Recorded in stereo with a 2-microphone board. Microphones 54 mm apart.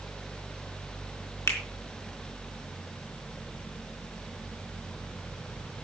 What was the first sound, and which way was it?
A finger snap, 65° left (ahead or behind).